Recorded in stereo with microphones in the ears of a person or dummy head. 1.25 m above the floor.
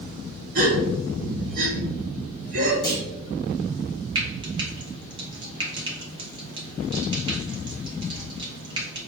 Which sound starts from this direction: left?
A clunk, at 2.8 s.